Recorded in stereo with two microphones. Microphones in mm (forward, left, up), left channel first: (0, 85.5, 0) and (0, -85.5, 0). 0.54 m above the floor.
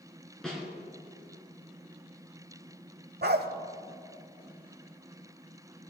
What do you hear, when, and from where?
0.4 s a snare drum: 5° left (ahead or behind), 3 m
3.2 s a dog barking: 75° right (ahead or behind), 0.7 m